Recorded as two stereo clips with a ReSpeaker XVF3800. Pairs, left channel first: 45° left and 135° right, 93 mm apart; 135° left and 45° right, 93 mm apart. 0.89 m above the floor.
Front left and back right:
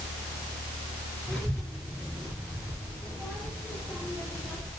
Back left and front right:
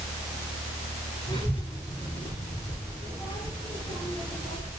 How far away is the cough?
I don't hear a cough.